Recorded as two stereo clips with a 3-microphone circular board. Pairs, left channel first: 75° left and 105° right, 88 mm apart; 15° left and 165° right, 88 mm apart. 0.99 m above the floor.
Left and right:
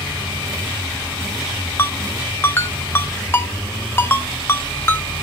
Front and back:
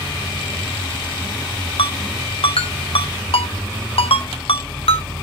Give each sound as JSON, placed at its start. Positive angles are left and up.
{"t": 1.8, "sound": "a ringtone", "azimuth_deg": 10, "distance_m": 1.1}